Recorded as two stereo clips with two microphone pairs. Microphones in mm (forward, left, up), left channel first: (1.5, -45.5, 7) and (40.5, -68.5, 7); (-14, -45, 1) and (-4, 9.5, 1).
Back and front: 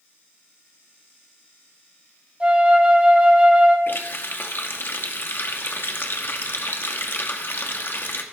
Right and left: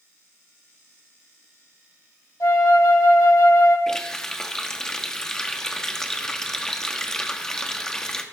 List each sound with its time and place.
2.4 s a flute: 95° right, 1.5 m
3.9 s a running tap: 175° right, 0.9 m